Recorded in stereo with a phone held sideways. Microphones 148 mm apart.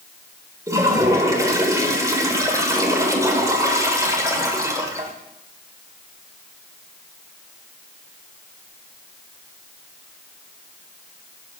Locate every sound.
0.7 s a toilet flushing: 20° right (ahead or behind), 1.6 m